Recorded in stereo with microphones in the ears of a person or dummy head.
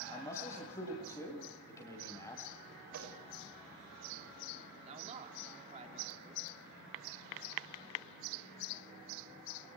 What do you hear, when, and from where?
0.1 s a man speaking: 25° left (ahead or behind), 7.5 m
2.9 s a microwave: 70° right (ahead or behind), 7 m
4.8 s a man speaking: 30° right (ahead or behind), 3.5 m